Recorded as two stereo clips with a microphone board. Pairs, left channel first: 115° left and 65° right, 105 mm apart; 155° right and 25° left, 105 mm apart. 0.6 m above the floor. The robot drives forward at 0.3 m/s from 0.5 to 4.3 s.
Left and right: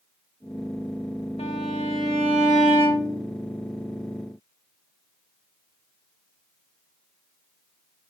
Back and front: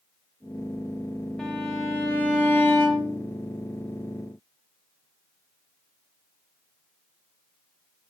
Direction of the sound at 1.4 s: 115° left.